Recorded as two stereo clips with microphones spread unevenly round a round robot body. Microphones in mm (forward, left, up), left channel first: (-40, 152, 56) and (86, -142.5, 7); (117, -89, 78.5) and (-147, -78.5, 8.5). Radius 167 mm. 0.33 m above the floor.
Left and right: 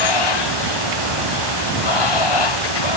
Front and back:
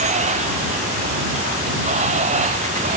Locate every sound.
0.0 s running water: 110° left